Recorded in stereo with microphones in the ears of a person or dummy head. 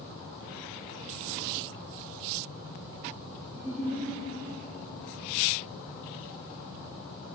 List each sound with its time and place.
3.5 s a giggle: 15° right (ahead or behind), 1.8 m